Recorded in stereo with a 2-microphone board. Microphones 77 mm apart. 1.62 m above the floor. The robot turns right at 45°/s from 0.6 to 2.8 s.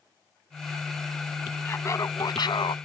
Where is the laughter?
30° left; by 2.8 s 80° left.